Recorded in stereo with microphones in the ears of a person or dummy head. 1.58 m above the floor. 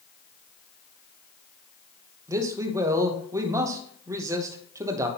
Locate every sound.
2.3 s a man speaking: 20° right (ahead or behind), 0.9 m